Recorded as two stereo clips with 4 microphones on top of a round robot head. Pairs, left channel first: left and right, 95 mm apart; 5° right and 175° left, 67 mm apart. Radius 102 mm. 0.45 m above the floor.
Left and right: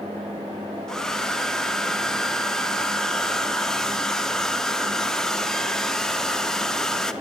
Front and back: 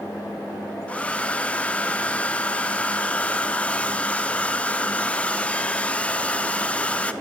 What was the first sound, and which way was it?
A hair dryer, 15° left.